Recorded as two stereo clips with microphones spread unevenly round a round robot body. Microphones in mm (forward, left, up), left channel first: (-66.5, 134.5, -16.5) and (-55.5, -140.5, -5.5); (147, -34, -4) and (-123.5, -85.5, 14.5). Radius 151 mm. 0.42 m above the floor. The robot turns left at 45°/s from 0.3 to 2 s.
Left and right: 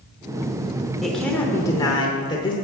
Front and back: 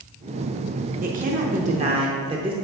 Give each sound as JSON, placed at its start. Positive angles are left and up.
{"t": 1.0, "sound": "a woman speaking", "azimuth_deg": 180, "distance_m": 0.8}